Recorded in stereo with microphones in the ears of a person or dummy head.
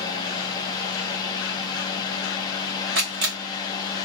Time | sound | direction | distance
0.0 | a fan | 25° left (ahead or behind) | 0.8 m
3.0 | a camera shutter | 45° right (ahead or behind) | 1.2 m